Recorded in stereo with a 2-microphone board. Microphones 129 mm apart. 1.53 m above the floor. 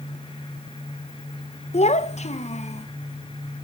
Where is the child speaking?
55° left (ahead or behind), 0.8 m.